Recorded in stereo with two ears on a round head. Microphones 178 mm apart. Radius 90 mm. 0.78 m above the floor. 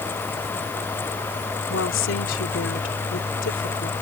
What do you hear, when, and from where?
1.7 s a woman speaking: 70° left (ahead or behind)